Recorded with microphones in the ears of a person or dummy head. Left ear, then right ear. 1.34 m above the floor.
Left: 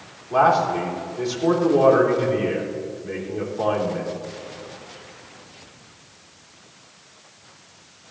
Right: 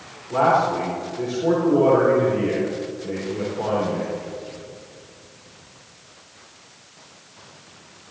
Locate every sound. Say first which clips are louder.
0.3 s a man speaking: left 1 dB; 85° left, 4 m